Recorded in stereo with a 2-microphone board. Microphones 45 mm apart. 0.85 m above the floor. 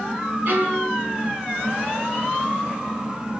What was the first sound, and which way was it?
A violin, 50° right (ahead or behind).